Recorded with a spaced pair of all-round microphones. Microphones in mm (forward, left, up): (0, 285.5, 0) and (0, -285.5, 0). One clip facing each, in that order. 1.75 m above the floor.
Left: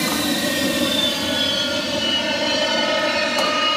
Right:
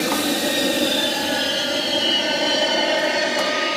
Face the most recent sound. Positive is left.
turn(degrees=35)  # may be behind; listen again after turning